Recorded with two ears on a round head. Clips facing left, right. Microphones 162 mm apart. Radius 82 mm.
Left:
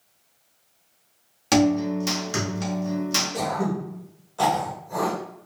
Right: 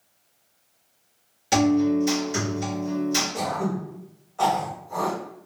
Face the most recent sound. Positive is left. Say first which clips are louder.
# left 1 dB
turn(degrees=45)  # may be behind; listen again after turning